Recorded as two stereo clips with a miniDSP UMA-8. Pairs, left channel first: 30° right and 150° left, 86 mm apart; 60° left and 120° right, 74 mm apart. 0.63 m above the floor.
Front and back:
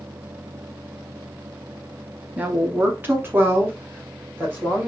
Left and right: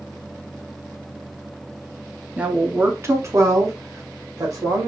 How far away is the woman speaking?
About 0.9 m.